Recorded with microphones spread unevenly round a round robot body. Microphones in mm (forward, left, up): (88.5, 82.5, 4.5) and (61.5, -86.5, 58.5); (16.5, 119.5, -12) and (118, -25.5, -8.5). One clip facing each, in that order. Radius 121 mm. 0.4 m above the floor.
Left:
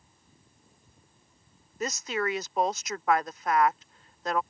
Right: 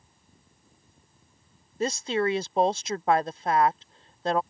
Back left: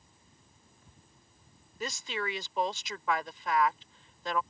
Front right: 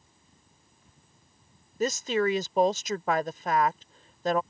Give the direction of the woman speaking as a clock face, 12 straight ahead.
1 o'clock.